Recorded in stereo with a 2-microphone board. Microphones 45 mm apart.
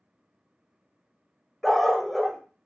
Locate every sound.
1.6 s a dog barking: 5° left (ahead or behind), 0.5 m